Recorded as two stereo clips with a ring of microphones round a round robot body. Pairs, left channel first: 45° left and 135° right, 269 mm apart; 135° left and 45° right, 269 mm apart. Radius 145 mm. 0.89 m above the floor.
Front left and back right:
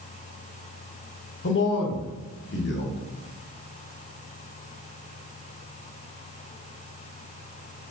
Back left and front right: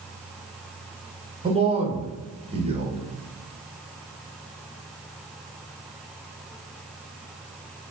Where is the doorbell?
No doorbell in this recording.